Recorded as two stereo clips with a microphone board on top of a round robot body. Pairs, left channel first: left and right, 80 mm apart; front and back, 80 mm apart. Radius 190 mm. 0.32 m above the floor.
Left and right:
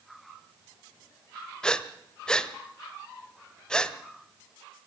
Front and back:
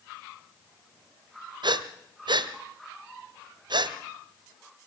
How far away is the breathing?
About 1.3 m.